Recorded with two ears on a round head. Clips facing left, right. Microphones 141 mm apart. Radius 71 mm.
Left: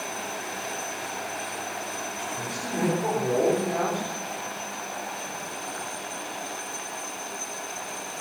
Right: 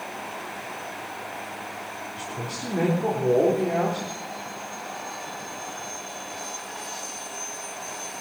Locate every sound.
2.2 s a man speaking: 25° right (ahead or behind), 4 m